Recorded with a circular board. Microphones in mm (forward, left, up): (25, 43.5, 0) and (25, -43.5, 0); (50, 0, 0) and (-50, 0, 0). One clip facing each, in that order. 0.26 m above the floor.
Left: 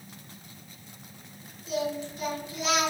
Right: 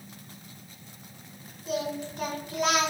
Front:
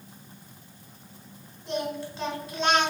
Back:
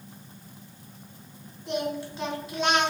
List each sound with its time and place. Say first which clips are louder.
1.7 s singing: left 1 dB, back 1 dB; 95° right, 1.0 m